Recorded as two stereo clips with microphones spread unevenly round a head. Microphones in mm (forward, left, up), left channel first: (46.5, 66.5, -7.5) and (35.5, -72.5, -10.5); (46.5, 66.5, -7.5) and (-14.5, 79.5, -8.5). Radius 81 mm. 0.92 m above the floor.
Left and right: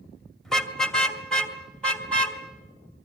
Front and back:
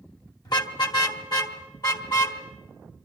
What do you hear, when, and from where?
0.5 s a car horn: straight ahead, 2 m